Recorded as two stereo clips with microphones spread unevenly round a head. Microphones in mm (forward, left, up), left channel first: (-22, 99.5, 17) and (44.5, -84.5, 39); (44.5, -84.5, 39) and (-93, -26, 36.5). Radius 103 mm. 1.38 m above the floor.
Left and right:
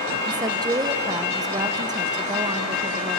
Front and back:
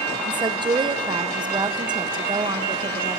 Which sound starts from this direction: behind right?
A woman speaking, at 0.2 s.